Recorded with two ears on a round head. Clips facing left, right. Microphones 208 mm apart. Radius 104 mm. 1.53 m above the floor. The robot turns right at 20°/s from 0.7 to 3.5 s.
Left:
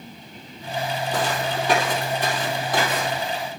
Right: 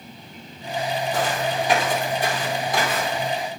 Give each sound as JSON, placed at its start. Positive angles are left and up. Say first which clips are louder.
{"t": 1.1, "sound": "footsteps", "louder": "even", "side_deg": 60, "distance_m": 3.5}